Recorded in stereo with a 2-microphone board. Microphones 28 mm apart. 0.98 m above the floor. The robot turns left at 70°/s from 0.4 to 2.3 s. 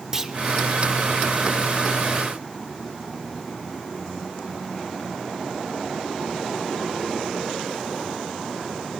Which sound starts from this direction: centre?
A clunk, at 0.1 s.